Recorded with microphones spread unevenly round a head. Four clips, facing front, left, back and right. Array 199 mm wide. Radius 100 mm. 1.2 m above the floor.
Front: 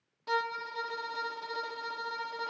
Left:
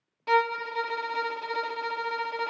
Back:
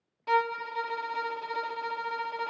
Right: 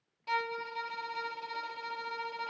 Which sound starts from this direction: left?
A violin, at 0.3 s.